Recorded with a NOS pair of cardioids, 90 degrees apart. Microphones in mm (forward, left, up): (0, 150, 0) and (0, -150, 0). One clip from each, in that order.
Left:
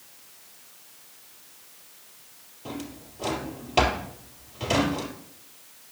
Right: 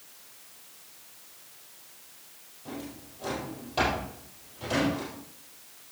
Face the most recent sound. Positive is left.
turn(degrees=70)